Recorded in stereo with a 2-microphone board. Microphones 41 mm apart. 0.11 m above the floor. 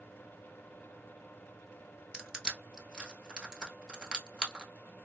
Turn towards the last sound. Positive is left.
turn(degrees=-20)  # may be behind; listen again after turning